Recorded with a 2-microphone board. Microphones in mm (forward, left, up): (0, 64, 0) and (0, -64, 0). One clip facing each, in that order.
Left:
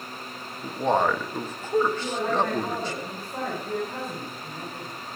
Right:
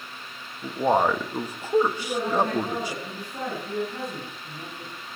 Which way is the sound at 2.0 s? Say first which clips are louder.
Right 1 dB; 65° left (ahead or behind).